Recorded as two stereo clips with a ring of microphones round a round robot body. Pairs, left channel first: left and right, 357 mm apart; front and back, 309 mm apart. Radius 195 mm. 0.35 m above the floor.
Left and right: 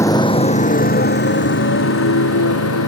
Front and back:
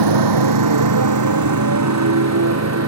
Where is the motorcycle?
175° left; by 2.9 s 140° left.